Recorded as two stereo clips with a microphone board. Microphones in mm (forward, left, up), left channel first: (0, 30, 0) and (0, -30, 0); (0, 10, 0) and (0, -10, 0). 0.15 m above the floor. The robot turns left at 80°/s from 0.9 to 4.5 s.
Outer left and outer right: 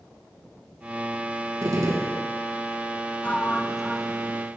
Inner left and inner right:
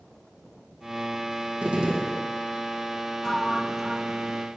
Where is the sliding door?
50° left, 1.1 m; by 4.5 s 50° right, 1.1 m.